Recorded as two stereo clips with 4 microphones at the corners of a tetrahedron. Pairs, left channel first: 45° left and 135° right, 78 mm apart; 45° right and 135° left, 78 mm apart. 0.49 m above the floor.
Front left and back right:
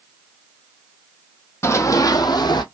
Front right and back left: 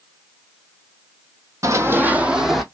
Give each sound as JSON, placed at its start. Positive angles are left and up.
{"t": 1.6, "sound": "running footsteps", "azimuth_deg": 95, "distance_m": 1.0}